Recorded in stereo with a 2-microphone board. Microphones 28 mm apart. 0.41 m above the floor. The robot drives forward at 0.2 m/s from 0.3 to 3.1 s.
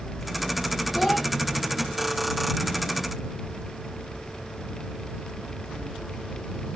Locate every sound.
0.9 s a child speaking: centre (ahead or behind), 0.8 m